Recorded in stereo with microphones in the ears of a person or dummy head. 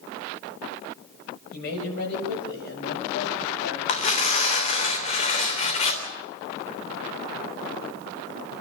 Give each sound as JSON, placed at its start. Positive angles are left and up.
{"t": 1.5, "sound": "a man speaking", "side_deg": 70, "distance_m": 7.5}
{"t": 3.9, "sound": "tearing paper", "side_deg": 35, "distance_m": 3.0}